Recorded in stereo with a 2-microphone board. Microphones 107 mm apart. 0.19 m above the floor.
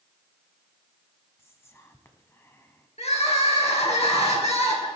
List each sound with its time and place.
1.4 s whispering: 20° left (ahead or behind), 1.2 m
3.0 s crying: 65° left (ahead or behind), 2.5 m